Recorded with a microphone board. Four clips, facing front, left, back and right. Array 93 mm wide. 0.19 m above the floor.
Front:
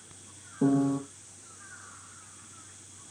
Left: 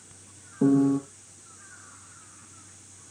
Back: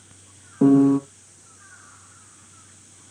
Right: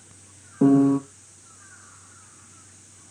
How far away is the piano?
About 0.5 m.